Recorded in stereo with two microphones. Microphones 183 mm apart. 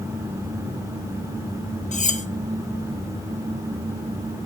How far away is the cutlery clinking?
About 1.1 m.